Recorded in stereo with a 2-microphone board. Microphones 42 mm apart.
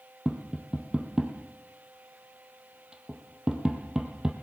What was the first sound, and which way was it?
Tapping, 25° right (ahead or behind).